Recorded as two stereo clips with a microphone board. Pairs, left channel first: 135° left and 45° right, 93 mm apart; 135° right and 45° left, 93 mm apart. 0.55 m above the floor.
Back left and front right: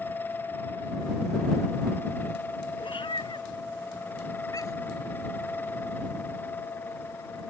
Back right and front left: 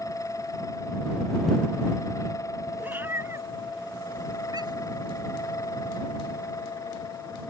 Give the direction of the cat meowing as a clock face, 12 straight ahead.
8 o'clock.